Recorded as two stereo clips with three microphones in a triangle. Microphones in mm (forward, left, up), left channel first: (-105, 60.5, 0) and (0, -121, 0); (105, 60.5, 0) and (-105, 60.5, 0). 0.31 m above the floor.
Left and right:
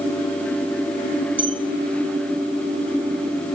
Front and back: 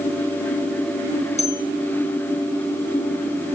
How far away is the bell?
About 3.5 m.